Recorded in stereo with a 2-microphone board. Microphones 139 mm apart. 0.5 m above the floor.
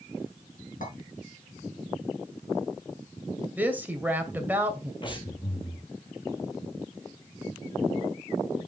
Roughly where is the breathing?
Left.